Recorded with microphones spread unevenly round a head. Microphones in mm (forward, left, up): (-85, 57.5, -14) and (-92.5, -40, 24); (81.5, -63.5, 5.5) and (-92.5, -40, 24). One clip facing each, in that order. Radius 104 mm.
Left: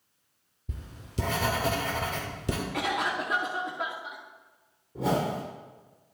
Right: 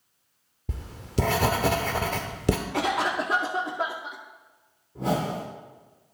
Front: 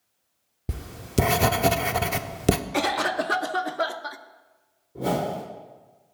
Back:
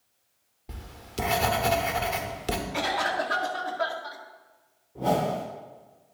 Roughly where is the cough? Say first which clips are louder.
Right 4 dB, front 3 dB; ahead right.